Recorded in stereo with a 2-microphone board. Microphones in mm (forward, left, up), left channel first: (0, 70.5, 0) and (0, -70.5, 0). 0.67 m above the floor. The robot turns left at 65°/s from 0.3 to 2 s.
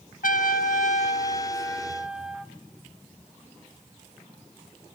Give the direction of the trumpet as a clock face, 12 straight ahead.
9 o'clock.